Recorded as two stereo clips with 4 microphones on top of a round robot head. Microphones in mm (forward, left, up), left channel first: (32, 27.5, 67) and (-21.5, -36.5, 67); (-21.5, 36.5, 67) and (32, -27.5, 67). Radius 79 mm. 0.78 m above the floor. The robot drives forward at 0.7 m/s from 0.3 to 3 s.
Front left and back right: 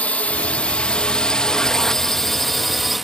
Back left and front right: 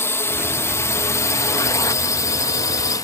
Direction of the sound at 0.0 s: 110° left.